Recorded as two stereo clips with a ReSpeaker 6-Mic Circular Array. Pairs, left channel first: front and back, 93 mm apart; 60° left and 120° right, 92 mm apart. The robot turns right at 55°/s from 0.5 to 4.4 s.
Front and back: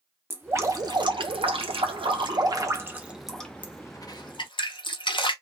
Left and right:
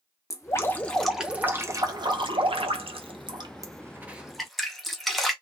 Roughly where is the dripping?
Behind left.